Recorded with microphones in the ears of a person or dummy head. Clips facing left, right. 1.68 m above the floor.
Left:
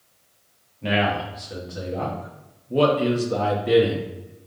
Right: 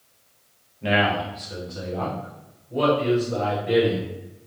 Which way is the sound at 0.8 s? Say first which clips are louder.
Right 1 dB; 5° right (ahead or behind).